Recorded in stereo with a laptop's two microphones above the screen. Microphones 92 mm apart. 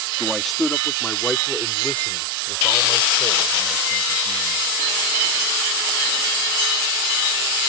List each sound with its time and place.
0.2 s a man speaking: 5° right (ahead or behind); by 4.6 s 25° left (ahead or behind)